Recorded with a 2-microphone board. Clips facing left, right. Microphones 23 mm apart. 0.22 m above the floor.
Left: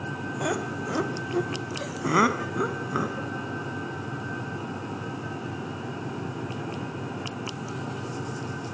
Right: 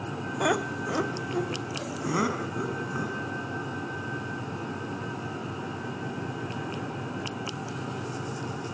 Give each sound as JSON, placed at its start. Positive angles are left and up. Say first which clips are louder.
{"t": 0.4, "sound": "laughter", "louder": "right 3 dB", "side_deg": -30, "distance_m": 1.1}